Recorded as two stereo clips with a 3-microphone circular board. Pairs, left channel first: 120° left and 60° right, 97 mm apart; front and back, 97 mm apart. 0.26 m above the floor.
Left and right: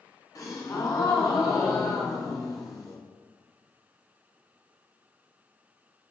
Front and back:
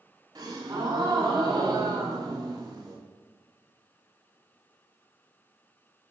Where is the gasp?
160° left, 1.4 m.